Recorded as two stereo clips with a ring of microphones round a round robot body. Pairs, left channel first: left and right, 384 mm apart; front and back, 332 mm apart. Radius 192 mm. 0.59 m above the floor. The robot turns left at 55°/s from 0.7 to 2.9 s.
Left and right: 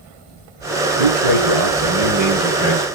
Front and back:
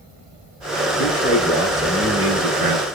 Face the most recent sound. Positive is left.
turn(degrees=-160)